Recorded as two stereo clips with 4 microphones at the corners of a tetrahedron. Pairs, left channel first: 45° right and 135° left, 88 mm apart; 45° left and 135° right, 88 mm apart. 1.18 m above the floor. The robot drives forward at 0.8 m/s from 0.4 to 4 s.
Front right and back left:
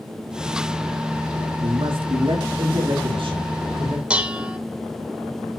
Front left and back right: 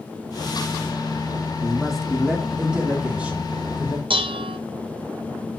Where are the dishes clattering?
145° right, 0.8 m.